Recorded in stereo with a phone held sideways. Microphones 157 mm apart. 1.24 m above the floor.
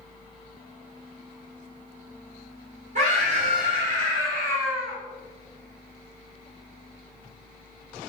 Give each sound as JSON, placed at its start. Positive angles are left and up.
{"t": 3.0, "sound": "a scream", "side_deg": -50, "distance_m": 1.4}